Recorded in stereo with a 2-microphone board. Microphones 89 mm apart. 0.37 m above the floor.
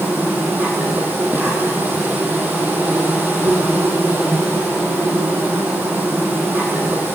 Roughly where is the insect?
Right.